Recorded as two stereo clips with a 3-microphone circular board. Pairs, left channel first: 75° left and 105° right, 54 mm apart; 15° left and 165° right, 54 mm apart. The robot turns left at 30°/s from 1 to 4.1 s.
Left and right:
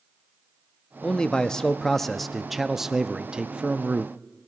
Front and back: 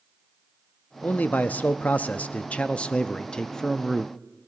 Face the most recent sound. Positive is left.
turn(degrees=-65)